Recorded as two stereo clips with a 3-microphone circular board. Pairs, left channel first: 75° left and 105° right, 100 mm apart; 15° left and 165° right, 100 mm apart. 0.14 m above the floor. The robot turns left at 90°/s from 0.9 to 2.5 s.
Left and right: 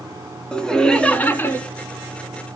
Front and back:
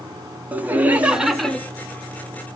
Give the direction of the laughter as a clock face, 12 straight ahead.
7 o'clock.